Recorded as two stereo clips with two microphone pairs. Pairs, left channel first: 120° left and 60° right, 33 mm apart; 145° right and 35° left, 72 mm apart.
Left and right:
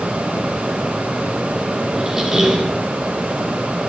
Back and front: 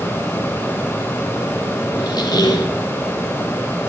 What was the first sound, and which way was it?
A squeak, 135° right.